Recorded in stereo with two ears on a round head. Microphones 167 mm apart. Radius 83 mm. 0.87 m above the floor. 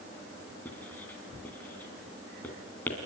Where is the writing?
10° left (ahead or behind), 2 m.